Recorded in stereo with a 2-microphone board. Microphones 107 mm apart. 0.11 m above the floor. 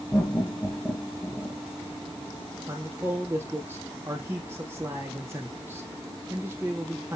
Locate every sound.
0.1 s laughter: 25° left (ahead or behind), 1.9 m
2.7 s a man speaking: 20° right (ahead or behind), 3.5 m